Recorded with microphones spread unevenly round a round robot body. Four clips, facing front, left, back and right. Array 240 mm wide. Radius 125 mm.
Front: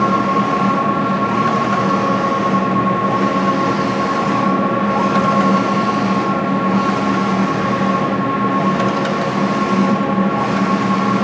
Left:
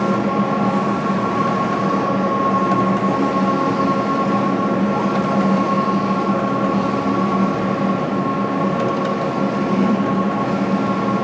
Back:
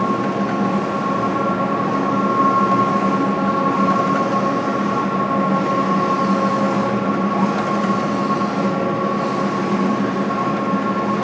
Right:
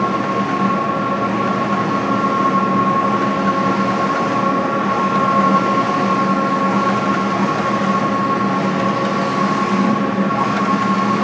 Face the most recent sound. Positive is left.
No sound to turn to.